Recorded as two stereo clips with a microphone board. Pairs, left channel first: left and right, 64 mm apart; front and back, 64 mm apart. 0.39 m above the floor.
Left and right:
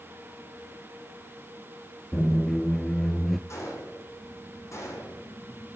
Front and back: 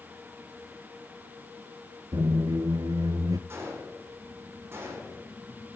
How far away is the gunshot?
About 8.5 m.